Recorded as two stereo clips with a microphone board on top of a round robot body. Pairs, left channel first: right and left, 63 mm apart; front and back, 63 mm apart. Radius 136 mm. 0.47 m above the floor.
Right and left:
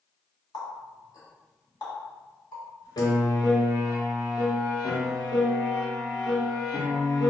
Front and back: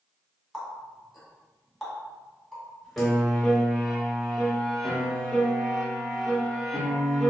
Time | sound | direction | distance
0.5 | a running tap | 85° right | 1.7 m
3.0 | a piano | 85° right | 1.1 m